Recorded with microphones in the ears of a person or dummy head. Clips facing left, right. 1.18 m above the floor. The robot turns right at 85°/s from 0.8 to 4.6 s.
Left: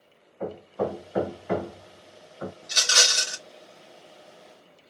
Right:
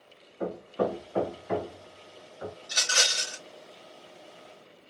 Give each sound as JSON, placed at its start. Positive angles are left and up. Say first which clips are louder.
{"t": 0.4, "sound": "hammering", "louder": "even", "side_deg": -15, "distance_m": 0.7}
{"t": 2.6, "sound": "a rattle", "louder": "left 3 dB", "azimuth_deg": 20, "distance_m": 1.2}